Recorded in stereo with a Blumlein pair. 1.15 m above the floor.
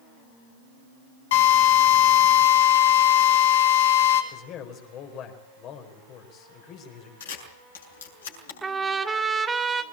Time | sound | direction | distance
1.3 | a drill | 55° left | 5.5 m
4.3 | a man speaking | 35° left | 4.5 m
7.2 | a camera shutter | 65° left | 6.5 m
8.6 | a trumpet | 10° right | 2 m